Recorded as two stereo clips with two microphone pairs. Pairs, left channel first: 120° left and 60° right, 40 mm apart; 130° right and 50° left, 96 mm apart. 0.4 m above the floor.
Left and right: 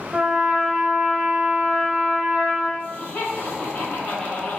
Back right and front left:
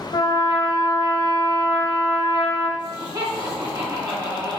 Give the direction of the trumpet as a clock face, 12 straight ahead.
4 o'clock.